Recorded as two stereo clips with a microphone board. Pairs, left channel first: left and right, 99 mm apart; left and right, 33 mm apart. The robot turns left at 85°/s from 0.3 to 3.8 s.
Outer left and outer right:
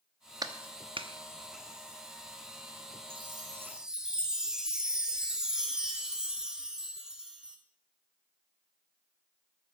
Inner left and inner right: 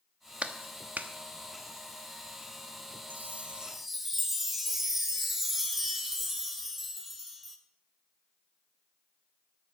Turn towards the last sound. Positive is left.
turn(degrees=-175)